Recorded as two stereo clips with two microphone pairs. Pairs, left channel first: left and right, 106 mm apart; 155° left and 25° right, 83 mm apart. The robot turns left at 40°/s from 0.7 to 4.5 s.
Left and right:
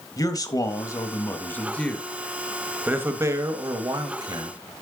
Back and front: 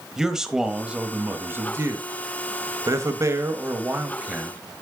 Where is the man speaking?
55° left, 1.1 m; by 4.6 s 95° right, 1.1 m.